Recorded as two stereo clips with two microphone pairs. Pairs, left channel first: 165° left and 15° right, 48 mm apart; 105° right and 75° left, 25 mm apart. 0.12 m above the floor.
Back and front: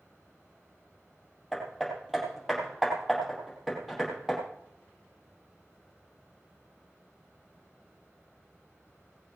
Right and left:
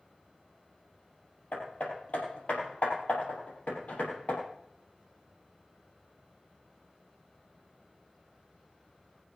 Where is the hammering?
105° right, 4.5 m.